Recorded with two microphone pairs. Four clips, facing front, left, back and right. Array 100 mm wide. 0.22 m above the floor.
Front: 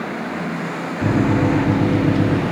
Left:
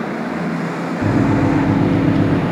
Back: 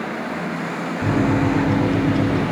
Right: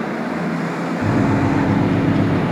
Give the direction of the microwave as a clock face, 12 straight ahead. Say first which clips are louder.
Left 2 dB, front 2 dB; 11 o'clock.